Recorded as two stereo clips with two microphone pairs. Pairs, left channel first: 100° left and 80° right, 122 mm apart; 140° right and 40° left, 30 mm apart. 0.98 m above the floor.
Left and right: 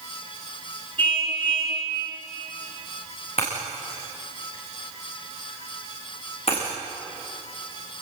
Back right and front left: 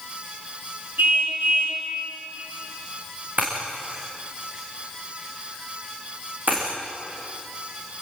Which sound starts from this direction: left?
Breaking glass, at 3.4 s.